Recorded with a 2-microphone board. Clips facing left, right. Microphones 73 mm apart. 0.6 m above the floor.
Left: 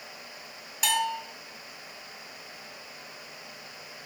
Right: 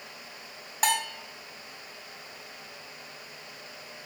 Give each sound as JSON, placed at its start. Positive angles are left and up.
{"t": 0.8, "sound": "a bell", "side_deg": -45, "distance_m": 1.2}